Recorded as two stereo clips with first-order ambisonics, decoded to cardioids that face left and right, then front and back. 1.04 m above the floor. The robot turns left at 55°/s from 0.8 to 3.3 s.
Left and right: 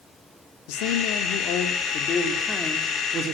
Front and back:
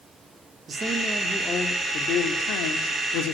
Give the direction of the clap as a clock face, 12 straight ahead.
No clap in this recording.